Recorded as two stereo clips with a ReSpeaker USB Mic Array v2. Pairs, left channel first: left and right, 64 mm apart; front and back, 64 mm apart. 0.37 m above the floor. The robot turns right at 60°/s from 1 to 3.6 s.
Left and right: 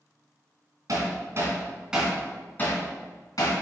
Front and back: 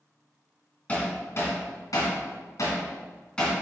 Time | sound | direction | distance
0.9 | hammering | 70° right | 2.5 m